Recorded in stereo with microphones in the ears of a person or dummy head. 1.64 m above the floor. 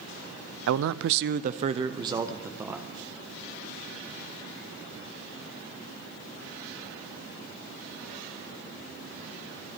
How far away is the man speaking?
About 0.6 m.